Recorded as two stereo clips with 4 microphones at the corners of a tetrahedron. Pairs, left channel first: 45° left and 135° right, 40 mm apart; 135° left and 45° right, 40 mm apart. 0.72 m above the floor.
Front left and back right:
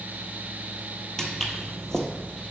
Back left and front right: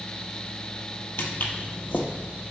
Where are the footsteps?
120° left, 1.1 m.